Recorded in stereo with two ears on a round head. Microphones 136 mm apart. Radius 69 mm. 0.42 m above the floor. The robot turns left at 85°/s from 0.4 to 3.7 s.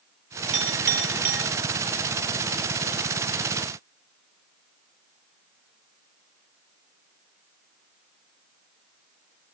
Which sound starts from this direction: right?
A clink, at 0.5 s.